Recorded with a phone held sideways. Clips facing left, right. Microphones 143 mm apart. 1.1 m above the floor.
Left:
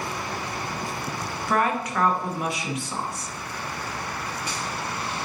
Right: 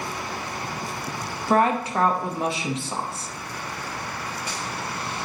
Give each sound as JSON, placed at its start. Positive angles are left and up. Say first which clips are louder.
{"t": 1.5, "sound": "a woman speaking", "louder": "right 4 dB", "side_deg": -30, "distance_m": 0.9}